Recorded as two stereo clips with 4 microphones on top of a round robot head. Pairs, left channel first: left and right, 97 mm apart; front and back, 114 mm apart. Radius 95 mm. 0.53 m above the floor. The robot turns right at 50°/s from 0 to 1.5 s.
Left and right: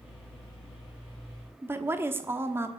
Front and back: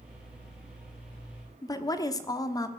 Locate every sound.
1.6 s a woman speaking: 40° right, 1.4 m